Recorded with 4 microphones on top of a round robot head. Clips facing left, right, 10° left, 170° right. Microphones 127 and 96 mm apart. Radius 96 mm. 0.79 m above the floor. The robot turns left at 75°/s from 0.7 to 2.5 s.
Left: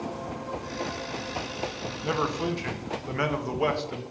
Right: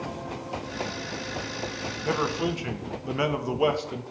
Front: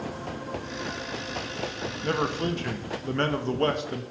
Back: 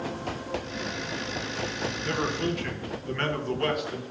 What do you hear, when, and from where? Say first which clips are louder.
2.0 s a man speaking: right 1 dB, front 2 dB; 15° left, 1.2 m; by 4.0 s 20° right, 1.2 m